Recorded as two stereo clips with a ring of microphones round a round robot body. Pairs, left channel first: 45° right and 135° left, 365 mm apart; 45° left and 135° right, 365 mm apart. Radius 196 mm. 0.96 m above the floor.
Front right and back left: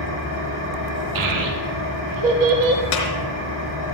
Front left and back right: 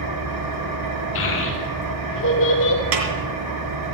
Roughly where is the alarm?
No alarm in this recording.